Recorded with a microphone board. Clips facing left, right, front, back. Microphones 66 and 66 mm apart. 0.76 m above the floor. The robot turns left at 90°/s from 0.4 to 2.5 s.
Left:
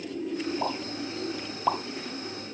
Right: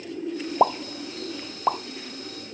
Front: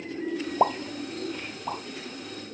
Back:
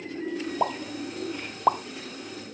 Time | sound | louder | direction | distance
0.6 | a pop | right 9 dB, front 5 dB | 65° right | 0.6 m